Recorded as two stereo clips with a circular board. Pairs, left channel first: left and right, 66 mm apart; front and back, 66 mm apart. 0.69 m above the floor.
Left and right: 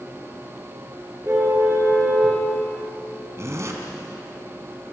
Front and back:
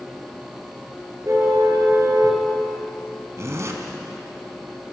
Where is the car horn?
140° right, 5.5 m.